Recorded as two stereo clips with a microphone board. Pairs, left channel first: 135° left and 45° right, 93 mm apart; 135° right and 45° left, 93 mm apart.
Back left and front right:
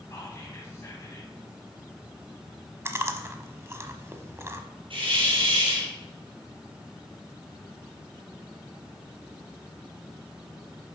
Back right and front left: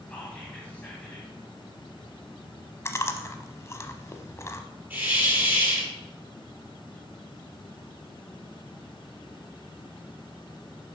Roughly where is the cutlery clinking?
No cutlery clinking in this recording.